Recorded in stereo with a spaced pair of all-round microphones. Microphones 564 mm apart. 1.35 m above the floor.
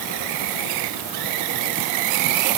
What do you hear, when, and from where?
Only background noise.